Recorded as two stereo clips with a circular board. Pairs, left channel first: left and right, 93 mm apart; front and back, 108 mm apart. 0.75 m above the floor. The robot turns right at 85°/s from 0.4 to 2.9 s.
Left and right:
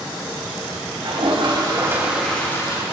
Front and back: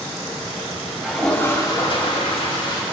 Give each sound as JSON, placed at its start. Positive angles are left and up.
{"t": 1.0, "sound": "a toilet flushing", "azimuth_deg": -105, "distance_m": 4.0}